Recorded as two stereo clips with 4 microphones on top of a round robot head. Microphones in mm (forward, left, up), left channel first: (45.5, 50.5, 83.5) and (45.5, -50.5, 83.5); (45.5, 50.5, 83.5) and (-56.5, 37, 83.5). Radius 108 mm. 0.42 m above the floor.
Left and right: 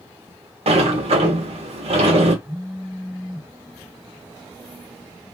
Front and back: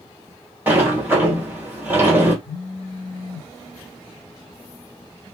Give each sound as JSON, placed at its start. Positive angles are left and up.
{"t": 0.7, "sound": "a sliding door", "azimuth_deg": -100, "distance_m": 1.6}
{"t": 2.5, "sound": "a phone buzzing", "azimuth_deg": -5, "distance_m": 1.4}